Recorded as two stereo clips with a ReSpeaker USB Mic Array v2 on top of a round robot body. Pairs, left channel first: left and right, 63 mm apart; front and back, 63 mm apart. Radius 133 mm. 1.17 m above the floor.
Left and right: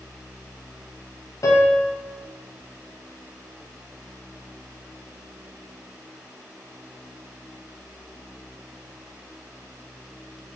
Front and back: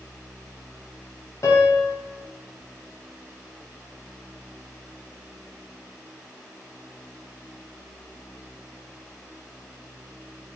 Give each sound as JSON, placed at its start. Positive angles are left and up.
{"t": 1.4, "sound": "a piano", "azimuth_deg": 45, "distance_m": 0.9}